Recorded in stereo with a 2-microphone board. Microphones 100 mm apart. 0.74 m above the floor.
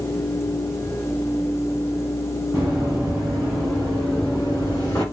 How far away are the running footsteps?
About 3 m.